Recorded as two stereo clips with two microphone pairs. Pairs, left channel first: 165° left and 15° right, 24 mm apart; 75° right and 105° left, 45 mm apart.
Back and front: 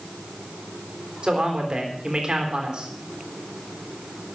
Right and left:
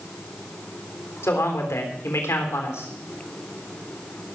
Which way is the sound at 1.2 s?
65° right.